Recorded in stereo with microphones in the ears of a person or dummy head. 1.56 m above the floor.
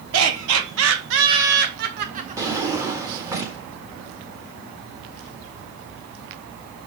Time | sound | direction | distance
0.1 | laughter | 85° right | 1.9 m
2.4 | a drawer | 15° right (ahead or behind) | 1.5 m